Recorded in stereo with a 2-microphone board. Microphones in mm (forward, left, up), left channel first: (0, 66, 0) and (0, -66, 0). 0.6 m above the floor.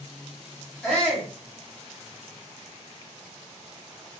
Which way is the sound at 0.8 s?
5° left (ahead or behind).